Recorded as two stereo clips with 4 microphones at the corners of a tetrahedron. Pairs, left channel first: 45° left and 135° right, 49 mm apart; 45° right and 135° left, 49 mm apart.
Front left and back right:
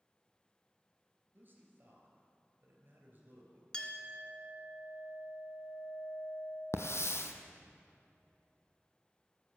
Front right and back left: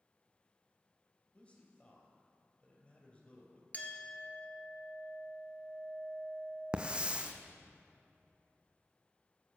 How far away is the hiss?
About 0.8 m.